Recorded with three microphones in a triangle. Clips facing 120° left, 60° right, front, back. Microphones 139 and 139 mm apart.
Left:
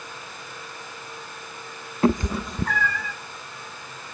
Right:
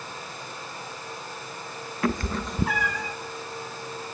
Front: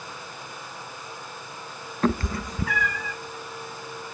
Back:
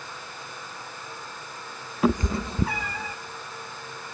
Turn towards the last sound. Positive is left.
turn(degrees=-125)